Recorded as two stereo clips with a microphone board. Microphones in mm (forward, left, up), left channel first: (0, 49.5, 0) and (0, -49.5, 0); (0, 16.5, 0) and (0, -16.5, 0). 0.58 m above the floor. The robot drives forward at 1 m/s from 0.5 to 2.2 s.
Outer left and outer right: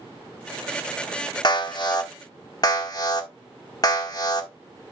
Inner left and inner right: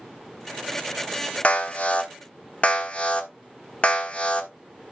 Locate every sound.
1.4 s an alarm: 50° left (ahead or behind), 1.2 m; by 4.5 s 40° left (ahead or behind), 1.3 m